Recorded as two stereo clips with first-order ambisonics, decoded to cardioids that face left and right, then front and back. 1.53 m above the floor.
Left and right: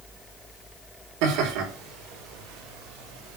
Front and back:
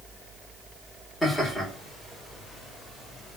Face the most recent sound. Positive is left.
turn(degrees=-85)